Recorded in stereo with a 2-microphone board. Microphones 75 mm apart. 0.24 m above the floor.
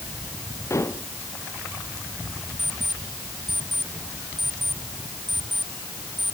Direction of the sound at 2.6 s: 85° right.